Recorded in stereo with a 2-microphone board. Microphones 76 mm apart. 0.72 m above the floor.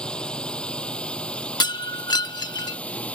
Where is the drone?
15° left (ahead or behind); by 3.2 s 20° left (ahead or behind).